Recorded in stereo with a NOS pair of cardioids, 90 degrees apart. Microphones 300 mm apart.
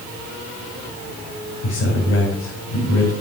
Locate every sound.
1.6 s a man speaking: 50° left, 4.5 m